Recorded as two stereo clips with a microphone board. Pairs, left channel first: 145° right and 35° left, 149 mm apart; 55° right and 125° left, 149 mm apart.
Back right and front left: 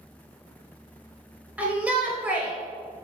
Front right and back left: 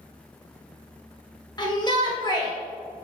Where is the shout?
40° right, 1.1 m.